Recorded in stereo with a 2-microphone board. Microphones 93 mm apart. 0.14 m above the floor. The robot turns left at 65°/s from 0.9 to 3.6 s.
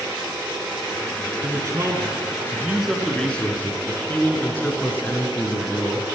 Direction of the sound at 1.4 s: 75° right.